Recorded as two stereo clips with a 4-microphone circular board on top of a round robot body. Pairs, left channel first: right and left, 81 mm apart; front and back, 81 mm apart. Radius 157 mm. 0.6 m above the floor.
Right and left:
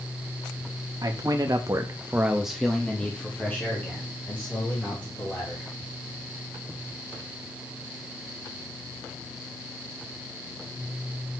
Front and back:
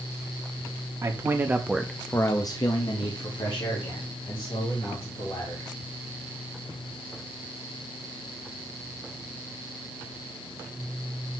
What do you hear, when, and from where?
1.0 s a man speaking: 130° left, 1.5 m; by 5.7 s 25° right, 4.5 m